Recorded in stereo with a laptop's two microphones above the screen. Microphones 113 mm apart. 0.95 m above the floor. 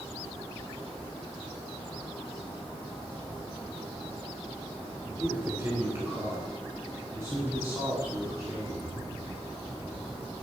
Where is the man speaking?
20° right (ahead or behind), 3 m; by 8.8 s 30° right (ahead or behind), 6.5 m.